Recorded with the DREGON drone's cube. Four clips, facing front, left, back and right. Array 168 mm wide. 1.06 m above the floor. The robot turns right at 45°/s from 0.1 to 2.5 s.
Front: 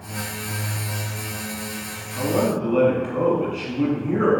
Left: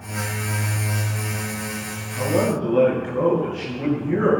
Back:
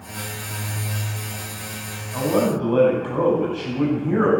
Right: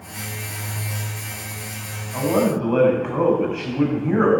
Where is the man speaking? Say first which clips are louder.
Right 2 dB, back 1 dB; 130° right, 8.5 m; by 4.3 s 115° right, 8.5 m.